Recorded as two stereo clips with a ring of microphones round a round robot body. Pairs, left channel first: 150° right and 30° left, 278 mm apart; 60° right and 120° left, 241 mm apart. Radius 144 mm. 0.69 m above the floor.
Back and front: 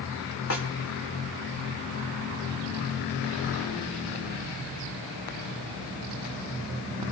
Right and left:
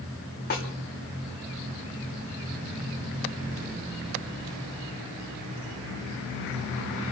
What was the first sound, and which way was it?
A snare drum, 115° right.